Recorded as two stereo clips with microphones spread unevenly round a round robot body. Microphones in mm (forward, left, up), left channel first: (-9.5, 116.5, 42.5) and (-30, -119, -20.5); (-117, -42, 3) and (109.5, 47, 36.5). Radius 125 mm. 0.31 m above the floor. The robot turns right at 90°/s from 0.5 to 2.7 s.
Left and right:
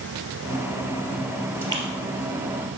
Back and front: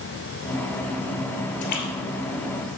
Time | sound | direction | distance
1.6 | a splash | 175° right | 2.5 m